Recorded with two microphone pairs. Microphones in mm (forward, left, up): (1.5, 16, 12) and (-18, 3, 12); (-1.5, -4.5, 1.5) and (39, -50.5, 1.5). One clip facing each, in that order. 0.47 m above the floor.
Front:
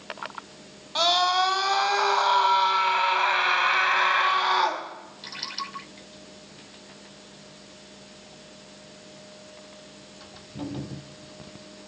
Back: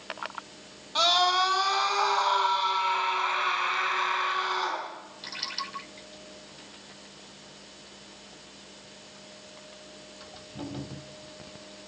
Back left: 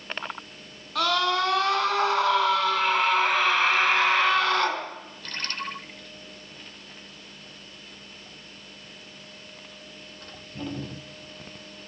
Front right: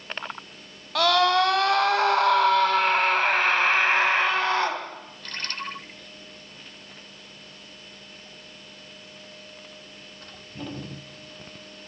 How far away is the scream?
About 3 m.